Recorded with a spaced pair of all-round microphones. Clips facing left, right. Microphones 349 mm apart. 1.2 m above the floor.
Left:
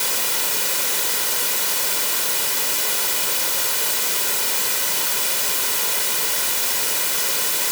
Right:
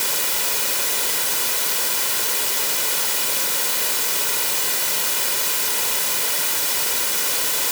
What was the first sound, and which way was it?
Only background noise.